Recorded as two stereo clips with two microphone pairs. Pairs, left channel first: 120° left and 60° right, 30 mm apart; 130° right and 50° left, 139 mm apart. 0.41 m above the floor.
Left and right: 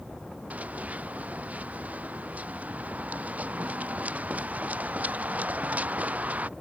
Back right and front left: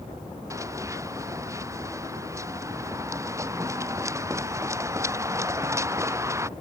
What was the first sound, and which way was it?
Running footsteps, 20° right.